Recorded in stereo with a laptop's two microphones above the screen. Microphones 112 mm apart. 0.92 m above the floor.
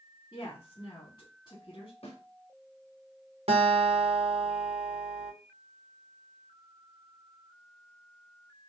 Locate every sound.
0.3 s a woman speaking: 40° left (ahead or behind), 2.0 m
2.0 s a snare drum: 65° left (ahead or behind), 1.7 m
3.5 s a guitar: 65° right (ahead or behind), 0.9 m